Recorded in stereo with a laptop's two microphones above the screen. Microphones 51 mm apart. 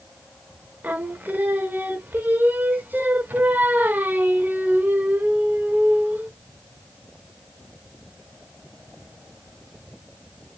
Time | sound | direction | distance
0.8 | singing | 35° right (ahead or behind) | 0.7 m